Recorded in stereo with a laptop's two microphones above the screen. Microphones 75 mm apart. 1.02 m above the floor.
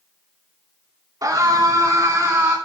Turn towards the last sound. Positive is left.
turn(degrees=-30)  # may be behind; listen again after turning